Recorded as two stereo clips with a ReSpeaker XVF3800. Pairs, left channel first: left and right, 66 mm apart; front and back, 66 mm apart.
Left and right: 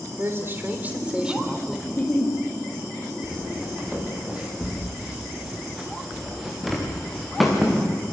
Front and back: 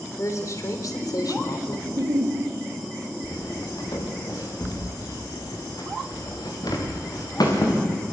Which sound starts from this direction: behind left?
A giggle, at 1.9 s.